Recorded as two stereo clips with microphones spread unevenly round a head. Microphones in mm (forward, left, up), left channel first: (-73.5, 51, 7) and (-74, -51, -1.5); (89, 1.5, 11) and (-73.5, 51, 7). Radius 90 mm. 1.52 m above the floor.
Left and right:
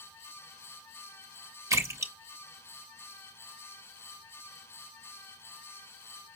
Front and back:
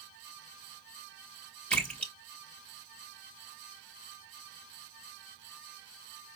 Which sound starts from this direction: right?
A splash, at 1.7 s.